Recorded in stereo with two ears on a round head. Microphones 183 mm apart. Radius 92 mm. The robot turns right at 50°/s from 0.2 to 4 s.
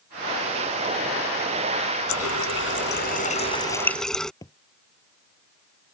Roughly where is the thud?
Centre.